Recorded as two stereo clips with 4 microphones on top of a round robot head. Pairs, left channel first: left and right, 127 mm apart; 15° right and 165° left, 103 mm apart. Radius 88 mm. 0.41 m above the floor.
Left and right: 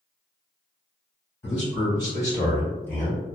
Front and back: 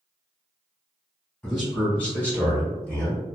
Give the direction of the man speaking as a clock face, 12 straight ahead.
10 o'clock.